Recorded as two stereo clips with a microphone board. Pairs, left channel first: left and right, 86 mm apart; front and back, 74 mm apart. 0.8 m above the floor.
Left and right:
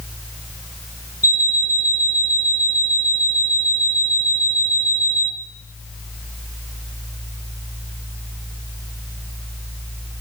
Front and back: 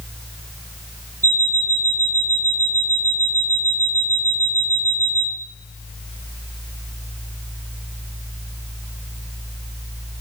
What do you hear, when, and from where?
1.2 s an alarm clock: 135° left, 1.4 m